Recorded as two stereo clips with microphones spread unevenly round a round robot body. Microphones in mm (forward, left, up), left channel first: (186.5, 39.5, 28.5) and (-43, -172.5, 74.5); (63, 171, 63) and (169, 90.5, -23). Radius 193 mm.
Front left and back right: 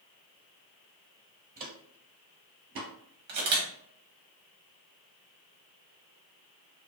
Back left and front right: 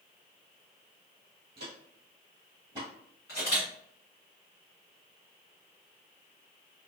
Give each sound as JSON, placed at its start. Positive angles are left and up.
{"t": 1.6, "sound": "footsteps", "azimuth_deg": -90, "distance_m": 1.0}
{"t": 3.3, "sound": "a camera shutter", "azimuth_deg": -165, "distance_m": 0.9}